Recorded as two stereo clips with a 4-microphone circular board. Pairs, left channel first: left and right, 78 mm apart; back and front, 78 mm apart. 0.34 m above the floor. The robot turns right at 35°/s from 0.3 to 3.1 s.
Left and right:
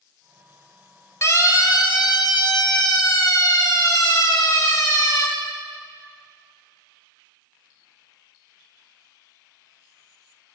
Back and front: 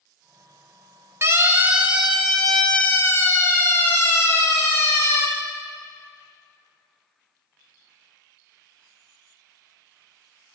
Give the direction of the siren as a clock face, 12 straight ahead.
10 o'clock.